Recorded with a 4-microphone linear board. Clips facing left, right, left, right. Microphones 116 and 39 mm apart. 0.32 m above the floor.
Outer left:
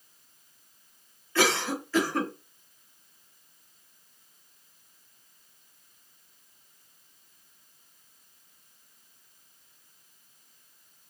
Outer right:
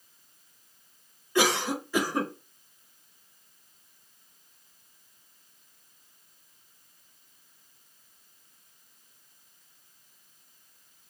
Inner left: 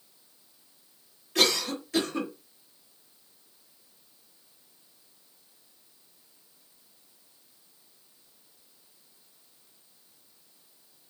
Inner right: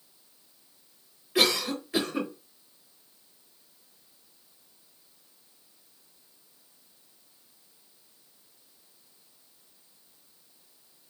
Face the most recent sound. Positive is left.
turn(degrees=-15)  # may be behind; listen again after turning